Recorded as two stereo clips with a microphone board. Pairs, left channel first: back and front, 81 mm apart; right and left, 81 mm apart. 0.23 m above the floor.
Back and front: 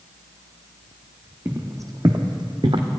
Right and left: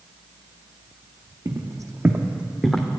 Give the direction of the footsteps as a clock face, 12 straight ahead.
10 o'clock.